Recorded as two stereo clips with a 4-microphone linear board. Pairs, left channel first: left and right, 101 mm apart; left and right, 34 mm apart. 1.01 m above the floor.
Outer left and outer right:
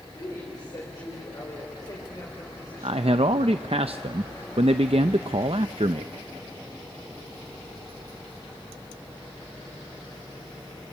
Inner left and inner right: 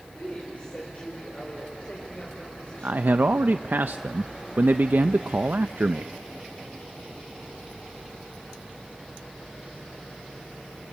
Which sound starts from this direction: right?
A man speaking, at 2.8 s.